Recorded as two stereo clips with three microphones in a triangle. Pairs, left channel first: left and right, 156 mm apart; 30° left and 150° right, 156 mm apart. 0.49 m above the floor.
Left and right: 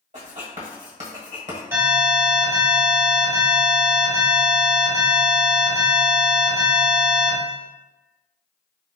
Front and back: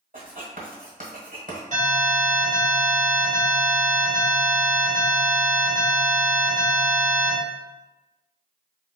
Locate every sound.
0.1 s writing: 125° right, 1.2 m
1.7 s an alarm: 160° right, 1.5 m